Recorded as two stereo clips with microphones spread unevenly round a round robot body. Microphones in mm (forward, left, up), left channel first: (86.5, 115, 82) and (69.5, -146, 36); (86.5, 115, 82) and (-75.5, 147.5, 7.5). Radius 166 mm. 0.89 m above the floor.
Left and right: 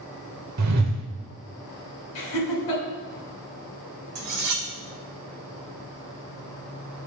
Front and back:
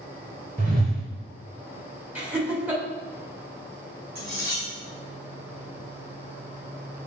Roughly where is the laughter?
Left.